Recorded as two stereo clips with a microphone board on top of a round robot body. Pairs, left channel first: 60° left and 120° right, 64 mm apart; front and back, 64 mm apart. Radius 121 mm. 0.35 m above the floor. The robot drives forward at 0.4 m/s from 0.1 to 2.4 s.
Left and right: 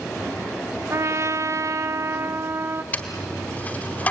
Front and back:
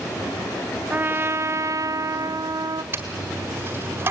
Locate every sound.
0.9 s a trumpet: 130° right, 0.6 m; by 2.8 s 160° right, 1.0 m
2.9 s a dropped coin: 125° left, 1.6 m